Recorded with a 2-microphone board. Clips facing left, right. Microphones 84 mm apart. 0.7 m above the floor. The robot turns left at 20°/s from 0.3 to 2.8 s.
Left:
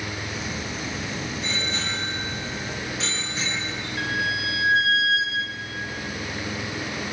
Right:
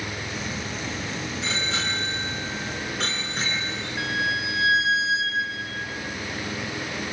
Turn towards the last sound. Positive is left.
turn(degrees=-25)  # may be behind; listen again after turning